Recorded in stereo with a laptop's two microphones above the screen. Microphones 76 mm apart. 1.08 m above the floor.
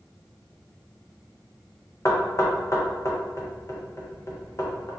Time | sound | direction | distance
2.0 | knocking | 40° left (ahead or behind) | 0.6 m